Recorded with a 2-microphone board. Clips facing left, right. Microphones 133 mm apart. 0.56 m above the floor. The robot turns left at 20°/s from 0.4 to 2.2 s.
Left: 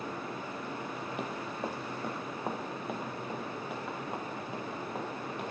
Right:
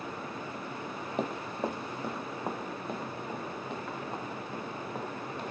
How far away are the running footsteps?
About 0.7 m.